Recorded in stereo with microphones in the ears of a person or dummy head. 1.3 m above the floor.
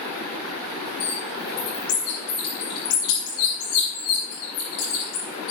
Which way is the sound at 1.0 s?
70° left (ahead or behind).